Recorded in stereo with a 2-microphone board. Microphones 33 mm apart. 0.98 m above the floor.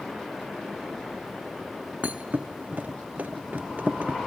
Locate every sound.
2.0 s a thud: 50° right (ahead or behind), 0.8 m